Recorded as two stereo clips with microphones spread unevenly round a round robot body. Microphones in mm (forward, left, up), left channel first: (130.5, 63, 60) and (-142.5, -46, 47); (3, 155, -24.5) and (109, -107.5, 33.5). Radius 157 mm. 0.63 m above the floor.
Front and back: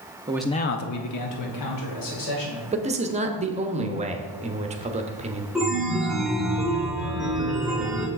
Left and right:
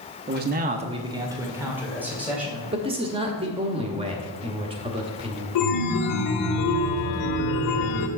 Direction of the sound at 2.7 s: 140° right.